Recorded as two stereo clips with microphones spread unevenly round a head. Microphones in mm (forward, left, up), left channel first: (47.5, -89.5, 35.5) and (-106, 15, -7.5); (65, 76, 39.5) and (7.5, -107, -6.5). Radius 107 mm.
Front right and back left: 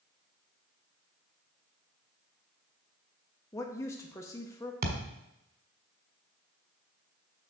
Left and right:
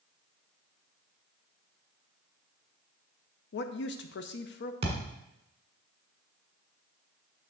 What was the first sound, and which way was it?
A woman speaking, 50° left.